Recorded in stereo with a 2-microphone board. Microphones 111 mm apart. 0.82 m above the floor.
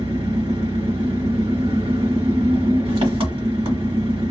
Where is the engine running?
55° right (ahead or behind), 1.5 m.